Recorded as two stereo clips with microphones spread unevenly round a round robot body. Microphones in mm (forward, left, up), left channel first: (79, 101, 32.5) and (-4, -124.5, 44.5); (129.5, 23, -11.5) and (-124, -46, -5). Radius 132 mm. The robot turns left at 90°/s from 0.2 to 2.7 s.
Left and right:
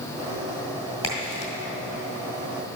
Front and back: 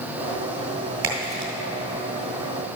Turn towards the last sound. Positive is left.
turn(degrees=0)